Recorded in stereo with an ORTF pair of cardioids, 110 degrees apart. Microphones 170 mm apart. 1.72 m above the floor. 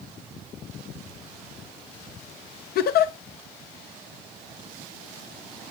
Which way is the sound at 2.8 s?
60° left.